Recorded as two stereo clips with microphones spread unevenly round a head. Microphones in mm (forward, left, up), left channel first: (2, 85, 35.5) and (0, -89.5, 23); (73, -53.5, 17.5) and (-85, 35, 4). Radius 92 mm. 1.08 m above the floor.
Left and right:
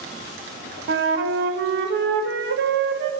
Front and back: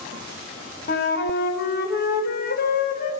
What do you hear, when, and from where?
0.9 s a flute: 70° right, 1.3 m